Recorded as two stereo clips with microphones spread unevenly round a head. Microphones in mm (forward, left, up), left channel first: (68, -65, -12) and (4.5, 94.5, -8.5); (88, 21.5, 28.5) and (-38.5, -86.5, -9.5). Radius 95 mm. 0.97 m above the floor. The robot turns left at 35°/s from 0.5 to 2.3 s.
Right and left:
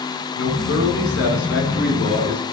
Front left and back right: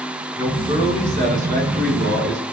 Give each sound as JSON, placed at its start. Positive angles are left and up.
{"t": 0.4, "sound": "a man speaking", "azimuth_deg": -65, "distance_m": 9.0}